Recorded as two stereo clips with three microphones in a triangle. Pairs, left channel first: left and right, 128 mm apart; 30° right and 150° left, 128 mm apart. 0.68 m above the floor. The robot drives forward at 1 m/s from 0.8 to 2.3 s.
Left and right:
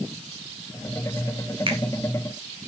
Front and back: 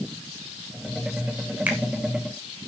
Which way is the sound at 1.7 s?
130° right.